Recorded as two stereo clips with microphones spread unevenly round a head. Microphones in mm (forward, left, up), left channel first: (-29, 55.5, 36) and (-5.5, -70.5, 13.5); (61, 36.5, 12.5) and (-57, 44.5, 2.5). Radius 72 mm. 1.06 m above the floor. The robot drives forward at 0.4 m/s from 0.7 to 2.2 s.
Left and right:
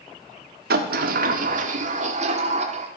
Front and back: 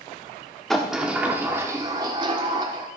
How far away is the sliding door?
About 1.1 m.